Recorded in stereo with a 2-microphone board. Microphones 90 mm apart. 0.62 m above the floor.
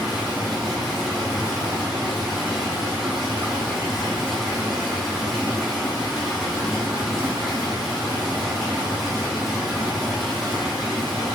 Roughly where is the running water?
Centre.